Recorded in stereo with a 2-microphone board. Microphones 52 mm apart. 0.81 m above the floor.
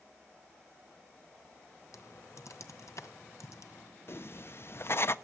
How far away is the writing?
About 0.6 m.